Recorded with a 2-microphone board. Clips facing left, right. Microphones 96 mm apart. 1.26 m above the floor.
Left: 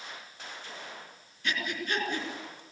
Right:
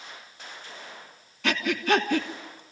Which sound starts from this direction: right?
Breathing, at 1.4 s.